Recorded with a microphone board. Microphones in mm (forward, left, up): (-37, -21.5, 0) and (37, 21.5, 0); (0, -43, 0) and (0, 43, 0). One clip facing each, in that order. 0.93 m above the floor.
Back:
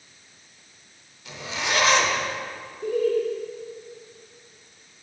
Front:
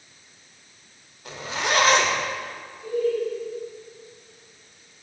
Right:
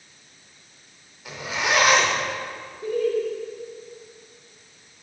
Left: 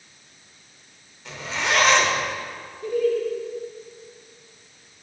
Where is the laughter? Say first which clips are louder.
Back 2 dB, left 1 dB; 150° right, 1.3 m.